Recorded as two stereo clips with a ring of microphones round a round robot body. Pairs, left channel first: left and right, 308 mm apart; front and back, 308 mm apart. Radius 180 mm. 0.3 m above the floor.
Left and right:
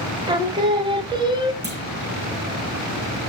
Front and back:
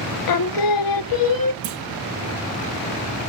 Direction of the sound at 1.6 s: 145° right.